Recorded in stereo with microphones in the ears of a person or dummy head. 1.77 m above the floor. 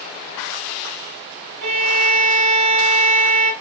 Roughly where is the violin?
Right.